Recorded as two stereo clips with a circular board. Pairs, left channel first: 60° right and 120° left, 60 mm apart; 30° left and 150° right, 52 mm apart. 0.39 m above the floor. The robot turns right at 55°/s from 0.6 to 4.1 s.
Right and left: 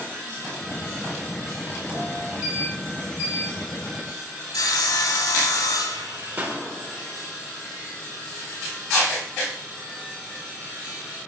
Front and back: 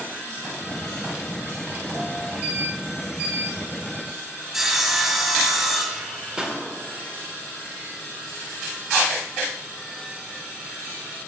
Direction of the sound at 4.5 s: 65° right.